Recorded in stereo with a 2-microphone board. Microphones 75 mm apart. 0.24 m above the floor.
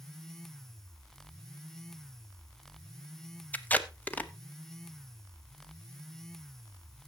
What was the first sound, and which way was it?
Tape being pulled, 20° left (ahead or behind).